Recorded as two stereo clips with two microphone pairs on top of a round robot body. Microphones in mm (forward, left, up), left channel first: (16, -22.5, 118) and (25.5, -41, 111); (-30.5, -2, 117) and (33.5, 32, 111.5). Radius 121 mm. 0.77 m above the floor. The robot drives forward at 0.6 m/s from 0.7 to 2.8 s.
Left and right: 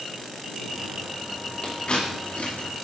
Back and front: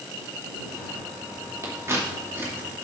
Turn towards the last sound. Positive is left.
turn(degrees=85)